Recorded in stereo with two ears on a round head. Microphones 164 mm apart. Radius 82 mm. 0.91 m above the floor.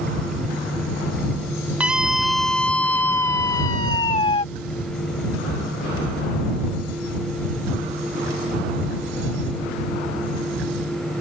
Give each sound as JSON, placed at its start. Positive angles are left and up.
{"t": 1.8, "sound": "a scream", "side_deg": -5}